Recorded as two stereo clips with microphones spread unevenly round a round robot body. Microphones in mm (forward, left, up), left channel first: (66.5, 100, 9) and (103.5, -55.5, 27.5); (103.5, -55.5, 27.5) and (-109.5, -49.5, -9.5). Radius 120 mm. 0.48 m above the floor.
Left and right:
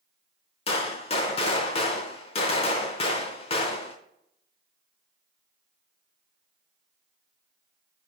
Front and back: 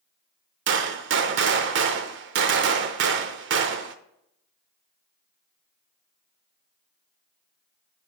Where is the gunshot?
155° left, 0.6 m.